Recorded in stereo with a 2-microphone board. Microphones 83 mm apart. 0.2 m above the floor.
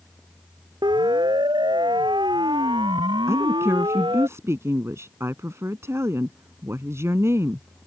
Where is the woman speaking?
35° right (ahead or behind).